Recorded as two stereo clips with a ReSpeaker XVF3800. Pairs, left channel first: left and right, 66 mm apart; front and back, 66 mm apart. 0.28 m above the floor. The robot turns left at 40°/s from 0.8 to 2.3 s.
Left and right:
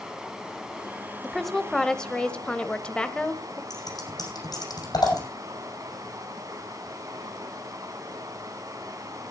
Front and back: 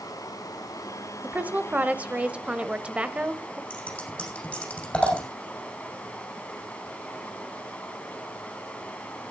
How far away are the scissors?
About 6.5 m.